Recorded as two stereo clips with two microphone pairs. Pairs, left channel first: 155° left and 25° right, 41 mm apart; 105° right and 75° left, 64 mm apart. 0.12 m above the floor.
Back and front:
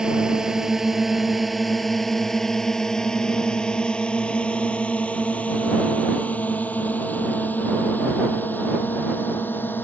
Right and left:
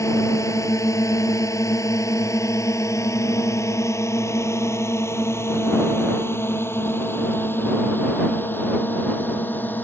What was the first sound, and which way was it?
A drone, 90° right.